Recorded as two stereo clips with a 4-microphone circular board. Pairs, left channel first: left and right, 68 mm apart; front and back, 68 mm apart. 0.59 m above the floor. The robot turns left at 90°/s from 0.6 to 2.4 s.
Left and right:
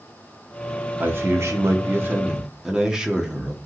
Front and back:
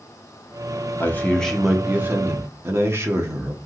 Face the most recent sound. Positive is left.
turn(degrees=-165)